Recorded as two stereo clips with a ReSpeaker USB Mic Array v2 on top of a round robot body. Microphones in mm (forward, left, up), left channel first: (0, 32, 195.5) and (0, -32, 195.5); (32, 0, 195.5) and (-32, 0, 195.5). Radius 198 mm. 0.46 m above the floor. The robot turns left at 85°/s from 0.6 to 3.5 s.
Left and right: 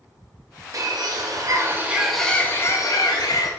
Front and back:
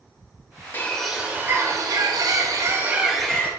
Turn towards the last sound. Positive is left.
turn(degrees=65)